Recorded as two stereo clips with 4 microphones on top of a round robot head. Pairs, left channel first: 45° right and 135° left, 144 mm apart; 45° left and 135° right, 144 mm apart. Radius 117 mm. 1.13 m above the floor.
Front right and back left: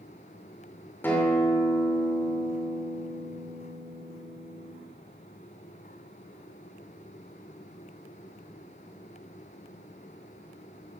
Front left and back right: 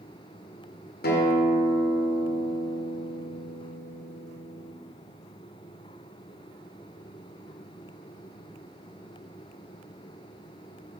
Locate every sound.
1.0 s a guitar: 35° left, 3 m